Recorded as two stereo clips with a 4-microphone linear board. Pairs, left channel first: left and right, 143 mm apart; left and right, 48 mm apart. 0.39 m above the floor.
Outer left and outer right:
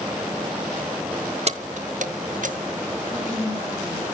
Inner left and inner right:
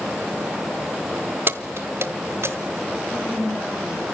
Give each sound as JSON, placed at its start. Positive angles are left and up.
{"t": 1.5, "sound": "keys jangling", "side_deg": -50, "distance_m": 0.9}
{"t": 3.1, "sound": "a woman speaking", "side_deg": 55, "distance_m": 10.0}